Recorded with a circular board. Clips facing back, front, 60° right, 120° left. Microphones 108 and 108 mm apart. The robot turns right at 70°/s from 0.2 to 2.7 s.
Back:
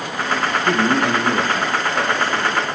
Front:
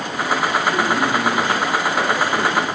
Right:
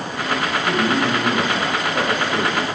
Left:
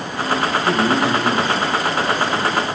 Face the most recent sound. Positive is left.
turn(degrees=-50)